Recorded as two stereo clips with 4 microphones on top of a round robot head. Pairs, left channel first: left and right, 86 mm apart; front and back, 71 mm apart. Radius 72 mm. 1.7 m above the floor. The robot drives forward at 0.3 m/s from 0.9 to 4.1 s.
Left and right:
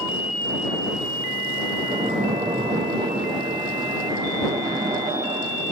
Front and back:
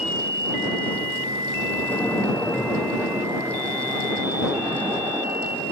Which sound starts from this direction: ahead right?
A splash, at 1.8 s.